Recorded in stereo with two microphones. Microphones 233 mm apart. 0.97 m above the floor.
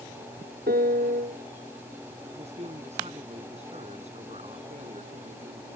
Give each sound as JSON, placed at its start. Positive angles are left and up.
{"t": 0.7, "sound": "a piano", "side_deg": -40}
{"t": 2.3, "sound": "a man speaking", "side_deg": -30}